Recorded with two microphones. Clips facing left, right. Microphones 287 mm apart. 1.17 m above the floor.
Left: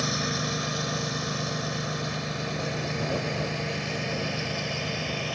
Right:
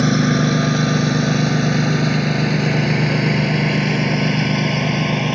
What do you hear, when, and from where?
0.0 s a lawn mower: 75° right (ahead or behind)